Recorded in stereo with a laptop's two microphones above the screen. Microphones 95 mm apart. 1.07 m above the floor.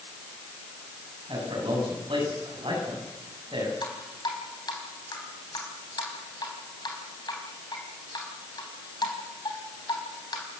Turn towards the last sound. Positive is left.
turn(degrees=50)  # may be behind; listen again after turning